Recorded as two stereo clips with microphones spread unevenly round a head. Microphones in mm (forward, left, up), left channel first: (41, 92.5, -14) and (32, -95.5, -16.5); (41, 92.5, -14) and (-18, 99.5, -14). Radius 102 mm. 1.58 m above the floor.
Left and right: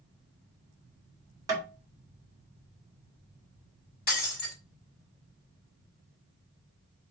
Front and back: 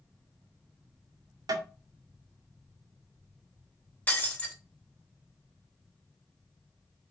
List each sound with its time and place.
1.5 s tapping: 170° right, 2.5 m
4.1 s breaking glass: 55° left, 3.5 m